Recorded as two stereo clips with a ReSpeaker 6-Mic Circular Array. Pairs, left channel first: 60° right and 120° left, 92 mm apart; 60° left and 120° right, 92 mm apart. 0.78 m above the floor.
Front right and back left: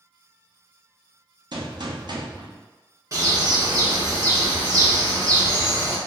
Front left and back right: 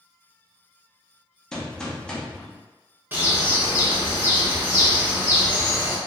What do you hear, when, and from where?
1.5 s a gunshot: 140° left, 0.5 m
3.1 s a bird: 175° left, 0.7 m